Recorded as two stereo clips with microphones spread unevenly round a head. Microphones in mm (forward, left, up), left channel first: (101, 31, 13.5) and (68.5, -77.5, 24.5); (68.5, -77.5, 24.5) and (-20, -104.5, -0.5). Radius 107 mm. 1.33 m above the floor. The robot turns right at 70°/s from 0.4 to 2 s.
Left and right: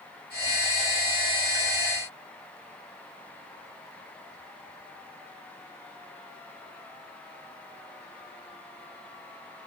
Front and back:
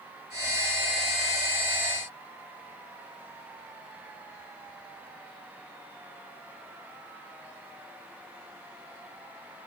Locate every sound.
Only background noise.